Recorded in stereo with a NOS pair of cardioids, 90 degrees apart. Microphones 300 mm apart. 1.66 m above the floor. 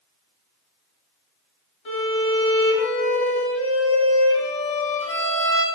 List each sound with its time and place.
1.9 s a violin: 45° left, 2.5 m